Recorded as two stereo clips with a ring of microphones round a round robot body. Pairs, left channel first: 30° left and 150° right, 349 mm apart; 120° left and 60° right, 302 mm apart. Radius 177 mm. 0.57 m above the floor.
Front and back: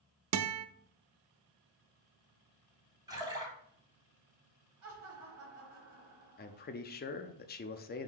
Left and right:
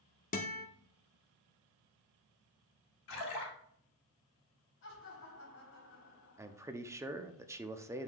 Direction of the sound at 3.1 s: 130° left.